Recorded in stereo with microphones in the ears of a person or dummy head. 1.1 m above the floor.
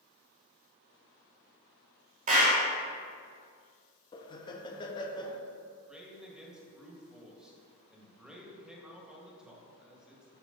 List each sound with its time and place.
2.3 s a clap: 35° right (ahead or behind), 1.4 m
4.1 s laughter: 20° left (ahead or behind), 0.7 m
5.9 s a man speaking: 10° right (ahead or behind), 1.8 m